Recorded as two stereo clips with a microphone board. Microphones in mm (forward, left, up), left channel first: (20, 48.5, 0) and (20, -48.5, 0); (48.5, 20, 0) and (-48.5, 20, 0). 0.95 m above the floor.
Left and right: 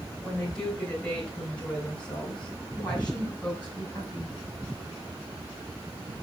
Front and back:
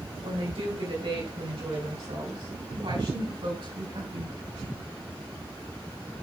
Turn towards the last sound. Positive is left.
turn(degrees=165)